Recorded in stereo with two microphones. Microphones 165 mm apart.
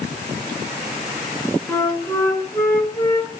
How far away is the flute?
About 1.9 m.